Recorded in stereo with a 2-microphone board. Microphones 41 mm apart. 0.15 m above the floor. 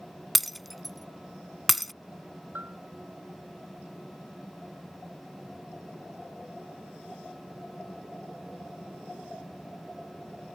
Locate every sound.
0.3 s breaking glass: centre (ahead or behind)
2.5 s a bell: 50° right (ahead or behind)